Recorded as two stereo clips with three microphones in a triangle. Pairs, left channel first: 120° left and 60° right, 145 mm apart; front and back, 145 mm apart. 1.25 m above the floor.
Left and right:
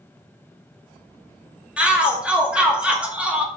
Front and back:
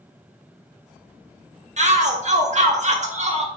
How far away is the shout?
About 1.8 m.